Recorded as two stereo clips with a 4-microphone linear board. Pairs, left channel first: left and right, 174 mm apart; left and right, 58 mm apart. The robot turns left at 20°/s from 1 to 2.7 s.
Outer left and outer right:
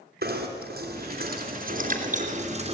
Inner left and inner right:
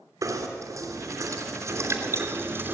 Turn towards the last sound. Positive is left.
turn(degrees=-140)